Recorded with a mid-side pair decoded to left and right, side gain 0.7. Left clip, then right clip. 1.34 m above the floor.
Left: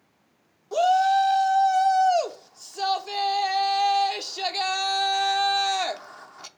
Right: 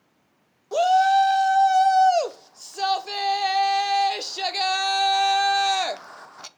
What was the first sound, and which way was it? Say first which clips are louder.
A shout: right 2 dB; 15° right.